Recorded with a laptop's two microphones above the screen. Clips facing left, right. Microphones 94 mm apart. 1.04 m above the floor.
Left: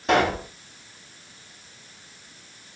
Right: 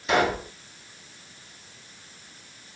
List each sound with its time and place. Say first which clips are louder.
0.1 s a pop: left 2 dB; 55° left (ahead or behind), 5.5 m